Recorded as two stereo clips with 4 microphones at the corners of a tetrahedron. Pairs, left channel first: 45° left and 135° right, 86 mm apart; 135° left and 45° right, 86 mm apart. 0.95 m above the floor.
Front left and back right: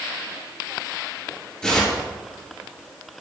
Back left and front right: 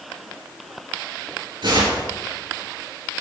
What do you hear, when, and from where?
1.6 s tearing paper: 30° right, 3 m